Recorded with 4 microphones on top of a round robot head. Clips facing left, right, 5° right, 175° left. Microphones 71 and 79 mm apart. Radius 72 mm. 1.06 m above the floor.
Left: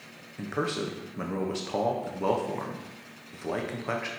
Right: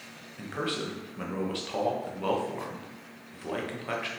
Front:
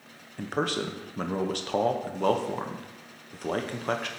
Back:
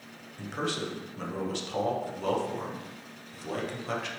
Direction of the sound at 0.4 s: 20° left.